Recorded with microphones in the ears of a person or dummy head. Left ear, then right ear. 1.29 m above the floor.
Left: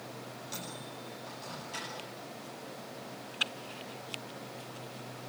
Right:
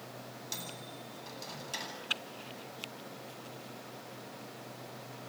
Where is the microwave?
35° right (ahead or behind), 9.5 m.